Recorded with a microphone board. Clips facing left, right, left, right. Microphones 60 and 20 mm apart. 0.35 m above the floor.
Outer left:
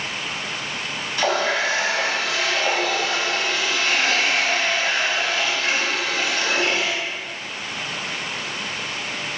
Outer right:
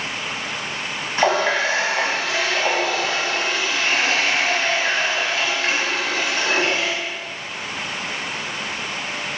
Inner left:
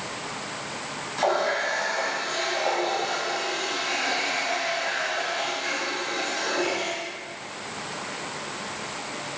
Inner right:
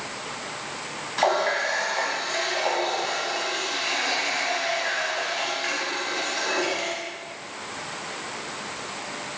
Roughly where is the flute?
No flute in this recording.